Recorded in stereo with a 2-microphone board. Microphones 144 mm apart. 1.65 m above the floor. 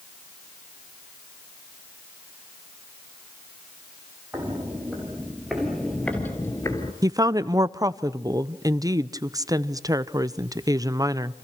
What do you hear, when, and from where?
4.3 s footsteps: 15° right (ahead or behind), 3.5 m; by 6.9 s 30° left (ahead or behind), 2.0 m
7.0 s a woman speaking: 25° right (ahead or behind), 0.7 m